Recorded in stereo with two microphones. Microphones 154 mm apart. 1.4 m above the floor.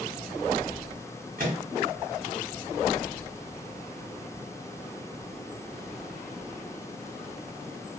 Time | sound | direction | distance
1.4 | a microwave | 65° right (ahead or behind) | 1.4 m